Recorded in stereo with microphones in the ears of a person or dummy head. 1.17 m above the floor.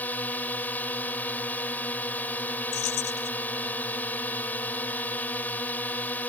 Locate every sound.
0.0 s a drone: 10° left (ahead or behind)
2.7 s keys jangling: 65° left (ahead or behind)